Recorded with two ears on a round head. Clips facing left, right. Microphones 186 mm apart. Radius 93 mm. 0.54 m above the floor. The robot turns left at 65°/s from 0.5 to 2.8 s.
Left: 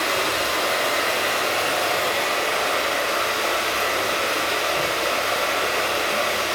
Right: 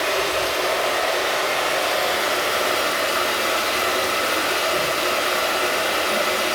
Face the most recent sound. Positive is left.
turn(degrees=-50)